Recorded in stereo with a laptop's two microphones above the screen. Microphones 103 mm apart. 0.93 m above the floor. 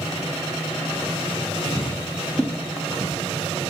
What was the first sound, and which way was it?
Footsteps, 30° left (ahead or behind).